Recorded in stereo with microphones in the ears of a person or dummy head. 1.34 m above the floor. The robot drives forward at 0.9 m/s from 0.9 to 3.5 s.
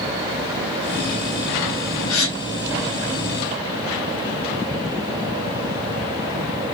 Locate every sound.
2.1 s a gasp: 85° left, 0.9 m; by 2.4 s 80° left, 0.9 m